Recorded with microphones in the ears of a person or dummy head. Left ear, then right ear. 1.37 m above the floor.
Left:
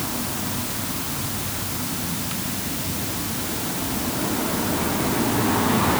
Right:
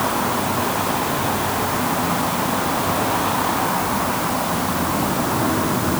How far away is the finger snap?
No finger snap in this recording.